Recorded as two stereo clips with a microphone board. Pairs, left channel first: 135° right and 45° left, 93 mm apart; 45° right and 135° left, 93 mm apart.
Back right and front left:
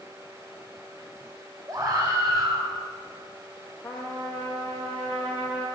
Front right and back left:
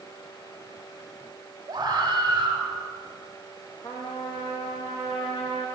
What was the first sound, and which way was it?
A scream, 90° left.